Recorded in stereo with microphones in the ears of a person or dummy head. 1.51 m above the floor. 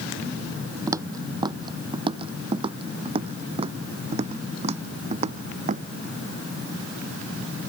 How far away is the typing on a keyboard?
No typing on a keyboard in this recording.